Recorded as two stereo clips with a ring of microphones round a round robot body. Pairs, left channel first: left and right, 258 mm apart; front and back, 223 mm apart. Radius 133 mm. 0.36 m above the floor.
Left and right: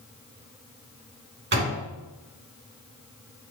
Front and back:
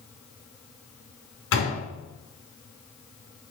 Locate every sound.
1.5 s a door slam: 40° right, 3 m